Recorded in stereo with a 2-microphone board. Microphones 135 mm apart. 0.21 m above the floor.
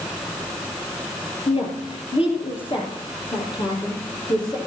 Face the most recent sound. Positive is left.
turn(degrees=30)  # may be behind; listen again after turning